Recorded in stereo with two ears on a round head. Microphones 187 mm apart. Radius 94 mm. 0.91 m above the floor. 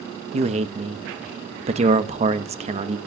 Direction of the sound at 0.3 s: 30° right (ahead or behind).